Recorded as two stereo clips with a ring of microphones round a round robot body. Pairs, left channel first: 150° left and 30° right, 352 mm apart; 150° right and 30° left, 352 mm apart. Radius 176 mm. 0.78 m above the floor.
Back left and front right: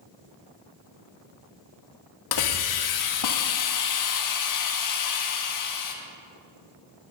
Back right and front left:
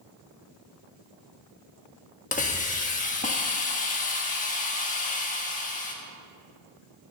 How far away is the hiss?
About 1.4 m.